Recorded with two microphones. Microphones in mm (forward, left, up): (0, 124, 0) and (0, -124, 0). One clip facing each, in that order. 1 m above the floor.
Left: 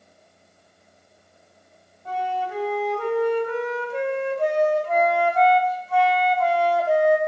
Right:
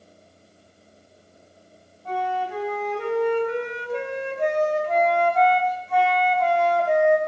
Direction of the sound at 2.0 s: 5° left (ahead or behind).